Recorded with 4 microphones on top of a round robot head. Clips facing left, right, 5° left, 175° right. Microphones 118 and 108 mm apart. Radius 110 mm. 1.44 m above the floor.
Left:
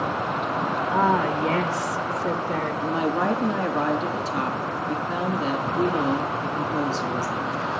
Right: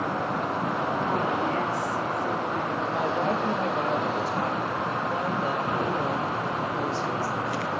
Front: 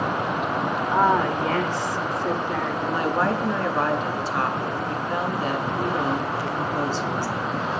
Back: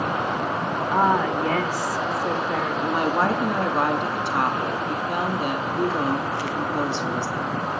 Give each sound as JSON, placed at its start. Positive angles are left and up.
{"t": 0.9, "sound": "a woman speaking", "azimuth_deg": 105, "distance_m": 1.3}
{"t": 2.8, "sound": "a woman speaking", "azimuth_deg": 120, "distance_m": 3.5}